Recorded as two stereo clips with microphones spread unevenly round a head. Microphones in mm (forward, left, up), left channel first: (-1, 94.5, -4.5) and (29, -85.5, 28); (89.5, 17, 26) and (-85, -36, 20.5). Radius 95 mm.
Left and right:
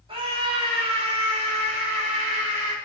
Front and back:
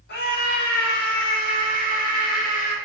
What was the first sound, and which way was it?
A scream, 20° right.